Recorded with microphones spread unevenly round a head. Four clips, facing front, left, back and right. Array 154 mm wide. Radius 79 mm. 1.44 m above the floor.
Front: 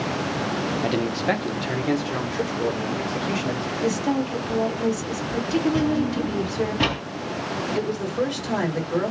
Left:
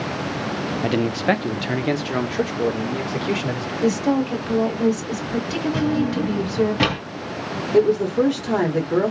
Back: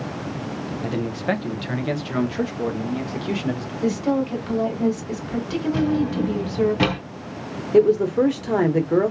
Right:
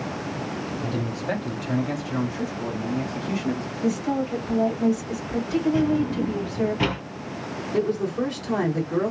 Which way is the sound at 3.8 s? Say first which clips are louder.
Left 5 dB, back 3 dB; 110° left.